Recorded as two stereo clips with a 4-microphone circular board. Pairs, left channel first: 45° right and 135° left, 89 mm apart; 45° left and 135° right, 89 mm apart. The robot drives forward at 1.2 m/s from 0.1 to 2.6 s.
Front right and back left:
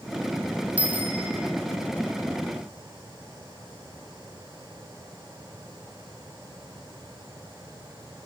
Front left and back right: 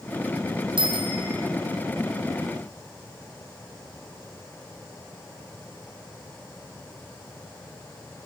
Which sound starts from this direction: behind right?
A bicycle bell, at 0.8 s.